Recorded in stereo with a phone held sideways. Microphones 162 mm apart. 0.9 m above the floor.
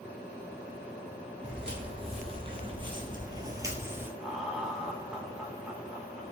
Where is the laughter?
5° right (ahead or behind), 0.9 m.